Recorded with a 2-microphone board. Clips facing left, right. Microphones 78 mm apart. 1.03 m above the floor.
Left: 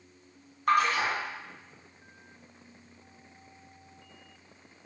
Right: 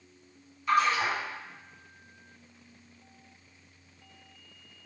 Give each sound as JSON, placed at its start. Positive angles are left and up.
{"t": 0.7, "sound": "a splash", "side_deg": 55, "distance_m": 0.6}